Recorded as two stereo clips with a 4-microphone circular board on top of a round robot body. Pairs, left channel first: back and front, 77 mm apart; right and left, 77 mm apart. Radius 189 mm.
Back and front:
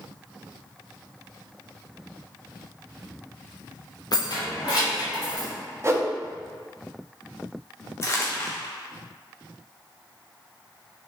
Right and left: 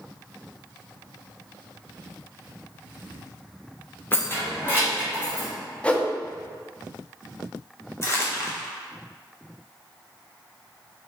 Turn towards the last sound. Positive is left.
turn(degrees=-135)